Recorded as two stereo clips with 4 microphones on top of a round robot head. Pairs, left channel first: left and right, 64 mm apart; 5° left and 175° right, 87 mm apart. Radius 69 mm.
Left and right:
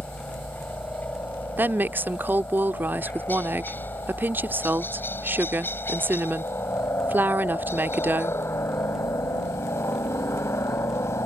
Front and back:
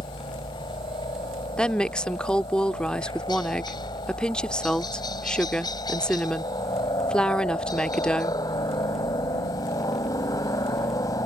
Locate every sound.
0.0 s a helicopter: 25° left; by 11.3 s 50° left
1.6 s a woman speaking: 65° right